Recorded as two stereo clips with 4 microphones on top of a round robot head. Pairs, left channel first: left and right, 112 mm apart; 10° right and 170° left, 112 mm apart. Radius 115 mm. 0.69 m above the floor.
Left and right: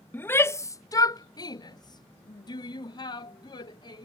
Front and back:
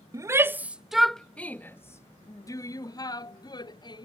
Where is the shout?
150° left; by 4.0 s 40° left.